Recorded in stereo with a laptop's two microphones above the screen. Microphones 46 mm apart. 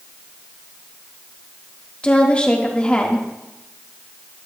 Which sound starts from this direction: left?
A woman speaking, at 2.0 s.